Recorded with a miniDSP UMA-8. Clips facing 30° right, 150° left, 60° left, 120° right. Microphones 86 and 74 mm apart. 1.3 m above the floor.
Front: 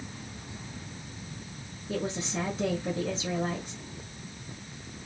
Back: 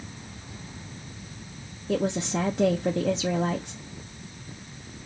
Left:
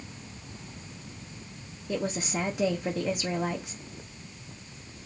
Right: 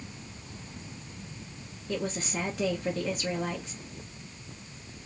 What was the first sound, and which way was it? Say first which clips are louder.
A woman speaking: back 6 dB, left 2 dB; 140° left.